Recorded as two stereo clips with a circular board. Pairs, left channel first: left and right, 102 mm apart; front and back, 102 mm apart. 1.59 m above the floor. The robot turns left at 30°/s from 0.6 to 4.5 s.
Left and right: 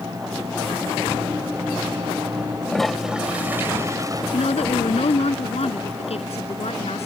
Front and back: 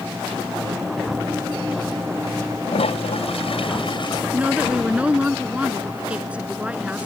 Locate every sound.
2.7 s a toilet flushing: 5° left; by 4.2 s 40° right
4.3 s a woman speaking: 105° left; by 7.1 s 100° left